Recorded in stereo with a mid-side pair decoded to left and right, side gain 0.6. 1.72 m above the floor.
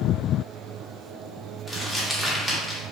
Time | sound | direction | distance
1.7 | crumpling | 10° left | 0.8 m